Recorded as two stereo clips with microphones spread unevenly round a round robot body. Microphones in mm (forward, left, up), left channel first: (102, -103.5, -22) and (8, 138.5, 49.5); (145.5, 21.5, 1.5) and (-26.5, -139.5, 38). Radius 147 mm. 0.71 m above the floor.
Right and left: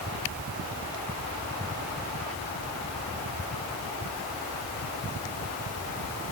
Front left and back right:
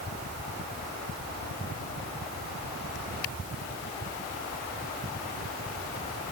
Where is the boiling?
No boiling in this recording.